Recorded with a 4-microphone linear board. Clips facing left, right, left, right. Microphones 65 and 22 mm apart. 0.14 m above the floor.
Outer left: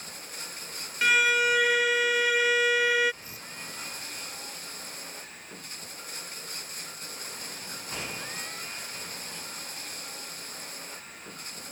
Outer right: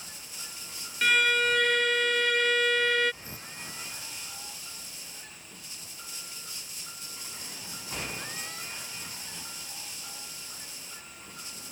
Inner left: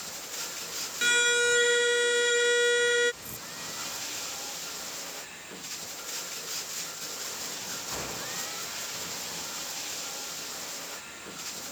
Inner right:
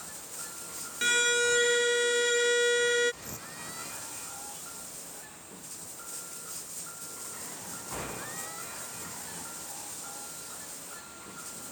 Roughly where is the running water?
Left.